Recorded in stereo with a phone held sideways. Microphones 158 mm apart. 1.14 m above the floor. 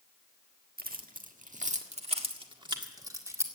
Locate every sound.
0.8 s keys jangling: 70° right (ahead or behind), 1.5 m; by 3.5 s 15° right (ahead or behind), 1.9 m